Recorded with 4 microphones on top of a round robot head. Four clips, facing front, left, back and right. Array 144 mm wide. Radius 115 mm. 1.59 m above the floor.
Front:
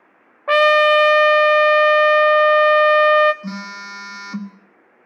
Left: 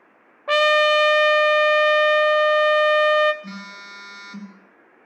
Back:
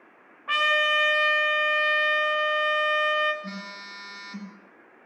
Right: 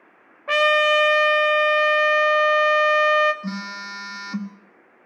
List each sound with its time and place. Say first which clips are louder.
0.5 s a trumpet: left 1 dB, front 12 dB; 15° left, 0.7 m
3.4 s a phone buzzing: right 6 dB, front 8 dB; 40° right, 1.6 m